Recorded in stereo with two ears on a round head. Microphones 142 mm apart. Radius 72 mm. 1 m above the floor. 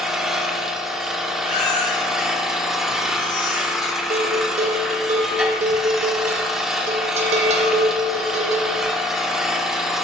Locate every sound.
0.0 s an engine running: 5° right (ahead or behind), 0.9 m
1.4 s a baby crying: 45° left (ahead or behind), 1.9 m
4.1 s a bell: 40° right (ahead or behind), 1.2 m